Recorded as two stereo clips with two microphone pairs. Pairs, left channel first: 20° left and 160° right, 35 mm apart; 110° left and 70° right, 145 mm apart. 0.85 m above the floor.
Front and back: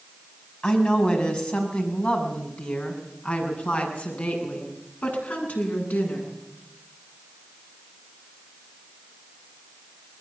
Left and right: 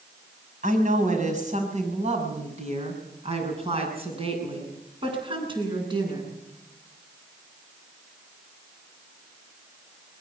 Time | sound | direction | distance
0.6 | a woman speaking | 40° right | 6 m